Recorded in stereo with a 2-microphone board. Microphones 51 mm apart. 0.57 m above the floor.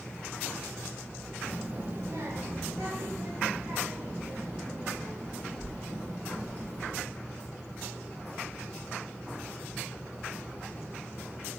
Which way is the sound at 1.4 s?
15° right (ahead or behind).